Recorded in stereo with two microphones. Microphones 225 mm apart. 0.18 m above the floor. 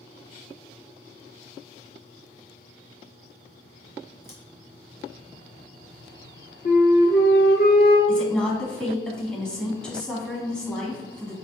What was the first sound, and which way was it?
Scissors, 10° left (ahead or behind).